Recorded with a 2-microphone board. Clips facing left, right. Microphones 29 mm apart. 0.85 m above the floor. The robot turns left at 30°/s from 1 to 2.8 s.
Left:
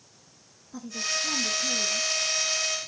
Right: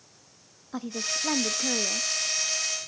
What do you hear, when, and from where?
0.7 s a woman speaking: 55° right, 0.6 m; by 2.1 s 90° right, 0.6 m